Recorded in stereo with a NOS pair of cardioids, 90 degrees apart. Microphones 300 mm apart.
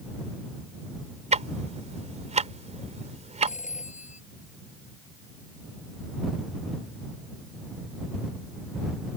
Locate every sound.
1.3 s ticking: 20° right
3.5 s a phone ringing: 25° left